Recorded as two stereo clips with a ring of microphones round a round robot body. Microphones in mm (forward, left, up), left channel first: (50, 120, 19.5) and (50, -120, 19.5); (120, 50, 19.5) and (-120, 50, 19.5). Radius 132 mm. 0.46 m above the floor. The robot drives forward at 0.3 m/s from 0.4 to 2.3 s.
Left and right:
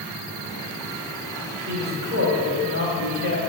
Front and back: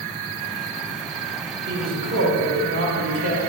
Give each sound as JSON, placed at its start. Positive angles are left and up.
{"t": 1.7, "sound": "a man speaking", "azimuth_deg": -130, "distance_m": 1.4}